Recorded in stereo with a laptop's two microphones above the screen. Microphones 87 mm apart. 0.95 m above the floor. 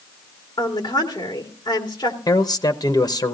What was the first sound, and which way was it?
A woman speaking, 50° left (ahead or behind).